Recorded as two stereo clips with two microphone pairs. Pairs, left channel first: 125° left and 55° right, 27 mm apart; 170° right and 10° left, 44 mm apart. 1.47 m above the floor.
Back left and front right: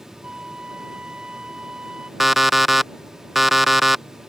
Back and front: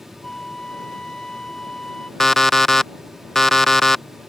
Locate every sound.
0.2 s a flute: 100° right
2.2 s an alarm clock: 115° right